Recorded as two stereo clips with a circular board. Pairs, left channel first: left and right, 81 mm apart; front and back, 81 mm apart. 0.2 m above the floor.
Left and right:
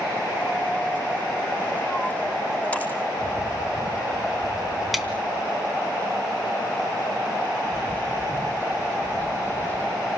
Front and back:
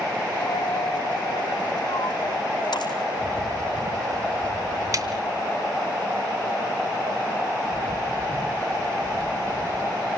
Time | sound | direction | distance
0.4 | a dropped coin | 20° left | 3.5 m
3.2 | a bird | 135° left | 4 m
4.9 | a snare drum | 175° right | 2 m
7.7 | a bird | 140° right | 1.6 m